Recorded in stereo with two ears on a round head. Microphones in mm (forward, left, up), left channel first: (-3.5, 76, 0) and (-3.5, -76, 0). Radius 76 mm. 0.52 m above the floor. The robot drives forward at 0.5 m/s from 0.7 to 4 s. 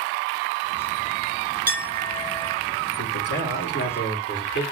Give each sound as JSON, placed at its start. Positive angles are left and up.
{"t": 1.7, "sound": "a clink", "side_deg": -10, "distance_m": 3.5}
{"t": 3.0, "sound": "a man speaking", "side_deg": 80, "distance_m": 4.0}